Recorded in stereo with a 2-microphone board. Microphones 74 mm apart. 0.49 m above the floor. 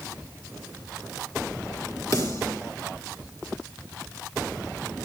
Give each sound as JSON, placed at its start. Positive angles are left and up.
{"t": 2.1, "sound": "a snare drum", "side_deg": 45, "distance_m": 4.5}